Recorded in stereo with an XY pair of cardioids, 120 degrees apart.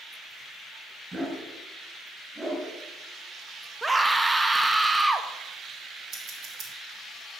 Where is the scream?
10° right, 1.1 m.